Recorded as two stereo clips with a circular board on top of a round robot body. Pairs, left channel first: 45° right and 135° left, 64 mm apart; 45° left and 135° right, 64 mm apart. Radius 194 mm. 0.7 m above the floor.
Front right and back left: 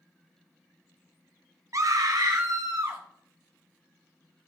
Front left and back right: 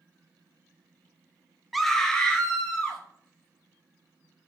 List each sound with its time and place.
1.7 s a scream: 135° left, 0.6 m; by 3.0 s 115° left, 1.5 m